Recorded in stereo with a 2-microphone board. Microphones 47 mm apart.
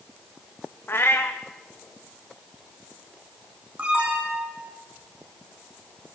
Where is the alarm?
25° right (ahead or behind), 7 m.